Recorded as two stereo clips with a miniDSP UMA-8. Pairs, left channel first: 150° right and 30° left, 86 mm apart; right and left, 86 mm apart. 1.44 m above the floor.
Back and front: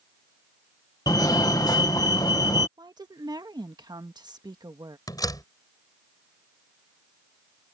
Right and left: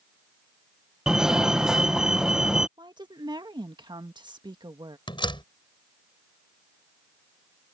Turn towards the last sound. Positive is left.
turn(degrees=-105)